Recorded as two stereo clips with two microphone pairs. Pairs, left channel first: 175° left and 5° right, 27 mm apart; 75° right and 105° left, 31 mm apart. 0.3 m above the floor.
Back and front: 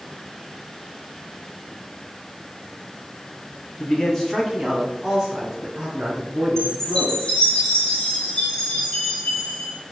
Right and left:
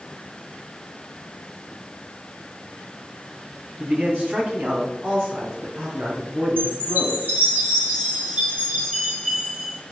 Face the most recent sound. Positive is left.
turn(degrees=115)